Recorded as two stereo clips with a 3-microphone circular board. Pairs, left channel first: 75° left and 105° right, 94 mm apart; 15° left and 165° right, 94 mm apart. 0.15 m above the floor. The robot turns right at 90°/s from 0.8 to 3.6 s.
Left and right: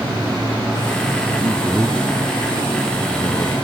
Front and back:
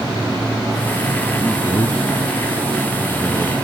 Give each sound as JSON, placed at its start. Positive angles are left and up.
{"t": 1.4, "sound": "a man speaking", "azimuth_deg": -60}